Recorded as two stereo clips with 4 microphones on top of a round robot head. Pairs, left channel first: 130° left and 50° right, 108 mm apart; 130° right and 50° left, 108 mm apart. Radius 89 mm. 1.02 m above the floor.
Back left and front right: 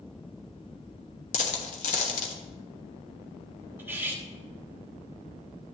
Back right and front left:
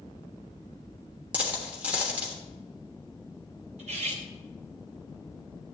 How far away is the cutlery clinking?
About 1.3 m.